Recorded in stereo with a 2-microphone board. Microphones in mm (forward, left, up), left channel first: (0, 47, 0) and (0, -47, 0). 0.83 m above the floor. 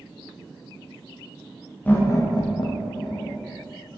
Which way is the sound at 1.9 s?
15° left (ahead or behind).